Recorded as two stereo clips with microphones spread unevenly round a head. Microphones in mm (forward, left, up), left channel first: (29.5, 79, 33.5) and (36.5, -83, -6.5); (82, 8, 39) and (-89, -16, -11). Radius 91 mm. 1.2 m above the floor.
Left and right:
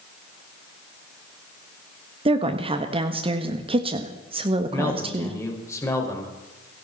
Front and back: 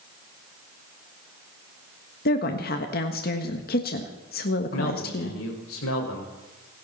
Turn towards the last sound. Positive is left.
turn(degrees=20)